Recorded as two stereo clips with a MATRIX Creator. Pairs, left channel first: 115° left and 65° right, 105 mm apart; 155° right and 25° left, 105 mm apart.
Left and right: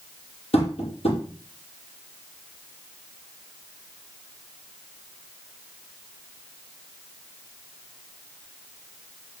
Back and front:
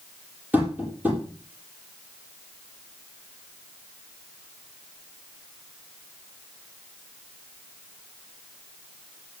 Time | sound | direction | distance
0.5 | tapping | 100° left | 6 m